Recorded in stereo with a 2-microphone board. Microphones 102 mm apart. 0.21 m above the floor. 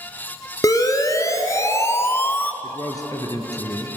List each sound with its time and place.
0.6 s a siren: 35° left (ahead or behind), 3 m; by 2.5 s 15° left (ahead or behind), 1.1 m
2.6 s a man speaking: 40° left (ahead or behind), 3 m